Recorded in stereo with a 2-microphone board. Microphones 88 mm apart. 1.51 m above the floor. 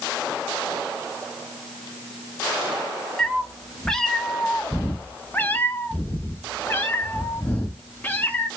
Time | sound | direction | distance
3.2 | a cat meowing | centre (ahead or behind) | 1.4 m